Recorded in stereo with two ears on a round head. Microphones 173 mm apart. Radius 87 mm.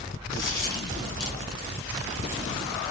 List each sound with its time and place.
0.3 s a dropped coin: 20° left (ahead or behind), 1.4 m